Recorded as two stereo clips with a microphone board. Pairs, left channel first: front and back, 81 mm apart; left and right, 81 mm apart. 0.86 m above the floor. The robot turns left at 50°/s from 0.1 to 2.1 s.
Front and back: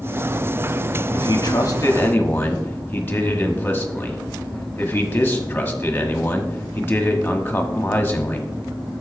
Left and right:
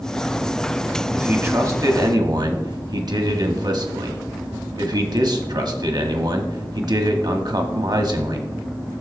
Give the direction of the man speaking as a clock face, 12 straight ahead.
1 o'clock.